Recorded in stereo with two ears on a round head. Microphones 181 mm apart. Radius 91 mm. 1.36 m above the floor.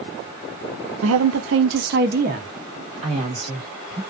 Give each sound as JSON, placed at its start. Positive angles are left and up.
{"t": 1.0, "sound": "a woman speaking", "side_deg": -75, "distance_m": 0.7}